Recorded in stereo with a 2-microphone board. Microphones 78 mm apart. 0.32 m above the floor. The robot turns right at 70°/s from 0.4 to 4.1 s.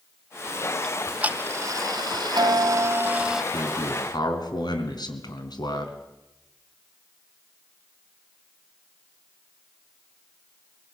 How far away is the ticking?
About 0.5 m.